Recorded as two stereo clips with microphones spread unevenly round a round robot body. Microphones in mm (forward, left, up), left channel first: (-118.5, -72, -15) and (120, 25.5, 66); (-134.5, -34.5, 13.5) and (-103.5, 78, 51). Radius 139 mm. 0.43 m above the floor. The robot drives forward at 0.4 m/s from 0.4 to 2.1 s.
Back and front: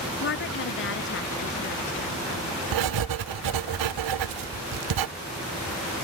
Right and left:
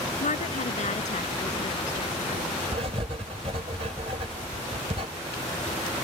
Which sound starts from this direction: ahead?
Writing, at 2.7 s.